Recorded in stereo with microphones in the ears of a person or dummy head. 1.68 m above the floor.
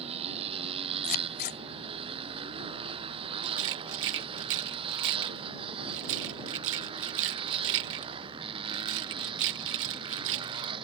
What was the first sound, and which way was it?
A motorcycle, 35° right (ahead or behind).